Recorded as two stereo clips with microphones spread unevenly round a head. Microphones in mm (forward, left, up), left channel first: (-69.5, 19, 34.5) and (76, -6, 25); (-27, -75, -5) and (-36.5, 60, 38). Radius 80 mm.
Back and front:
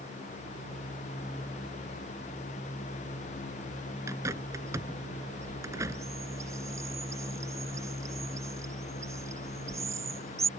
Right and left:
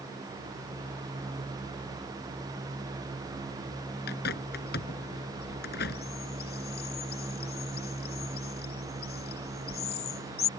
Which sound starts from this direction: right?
A bird, at 4.1 s.